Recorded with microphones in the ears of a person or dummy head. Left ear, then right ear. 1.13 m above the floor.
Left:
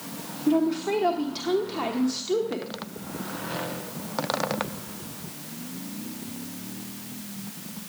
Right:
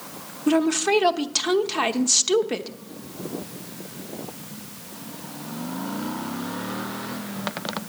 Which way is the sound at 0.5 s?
65° right (ahead or behind).